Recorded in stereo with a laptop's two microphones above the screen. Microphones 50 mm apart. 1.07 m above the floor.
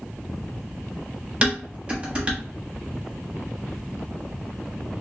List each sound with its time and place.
1.4 s dishes clattering: 20° right (ahead or behind), 0.9 m